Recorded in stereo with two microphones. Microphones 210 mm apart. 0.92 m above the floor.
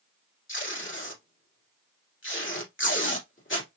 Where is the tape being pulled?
70° left (ahead or behind), 2 m.